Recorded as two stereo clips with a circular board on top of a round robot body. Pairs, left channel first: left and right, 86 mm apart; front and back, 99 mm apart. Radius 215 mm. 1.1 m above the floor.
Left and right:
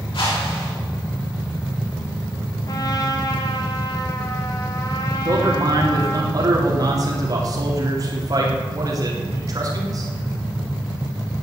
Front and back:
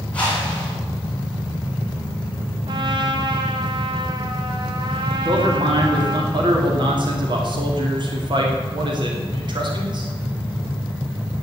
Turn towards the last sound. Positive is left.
turn(degrees=-140)